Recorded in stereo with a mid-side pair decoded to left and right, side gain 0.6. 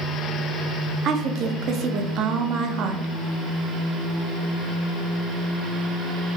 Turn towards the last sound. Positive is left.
turn(degrees=-55)